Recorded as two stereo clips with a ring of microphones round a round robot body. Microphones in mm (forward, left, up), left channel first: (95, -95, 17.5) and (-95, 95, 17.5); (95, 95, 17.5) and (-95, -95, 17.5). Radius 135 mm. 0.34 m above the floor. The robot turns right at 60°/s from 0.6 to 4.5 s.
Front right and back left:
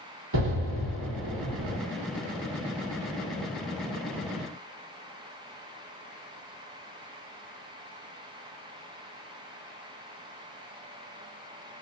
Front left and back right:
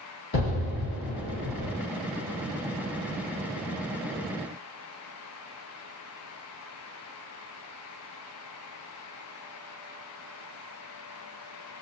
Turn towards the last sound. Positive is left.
turn(degrees=-35)